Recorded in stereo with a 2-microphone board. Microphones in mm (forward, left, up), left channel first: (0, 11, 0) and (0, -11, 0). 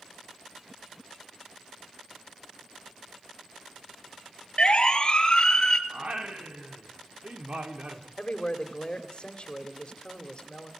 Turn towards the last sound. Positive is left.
turn(degrees=45)  # may be behind; listen again after turning